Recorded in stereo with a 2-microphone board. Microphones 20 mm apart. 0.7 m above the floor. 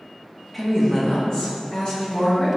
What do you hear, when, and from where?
0.5 s a woman speaking: 5° left (ahead or behind), 0.7 m; by 2.6 s 50° left (ahead or behind), 1.2 m